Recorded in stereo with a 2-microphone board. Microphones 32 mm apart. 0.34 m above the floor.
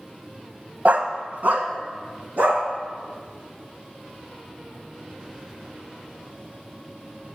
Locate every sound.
0.8 s a dog barking: 65° right (ahead or behind), 0.6 m